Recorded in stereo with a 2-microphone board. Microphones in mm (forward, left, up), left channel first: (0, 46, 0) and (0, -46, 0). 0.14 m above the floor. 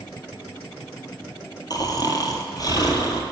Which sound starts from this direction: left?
Snoring, at 1.7 s.